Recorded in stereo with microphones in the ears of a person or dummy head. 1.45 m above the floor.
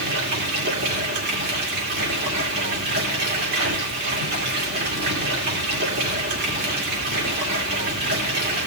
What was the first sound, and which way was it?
Running water, 55° right (ahead or behind).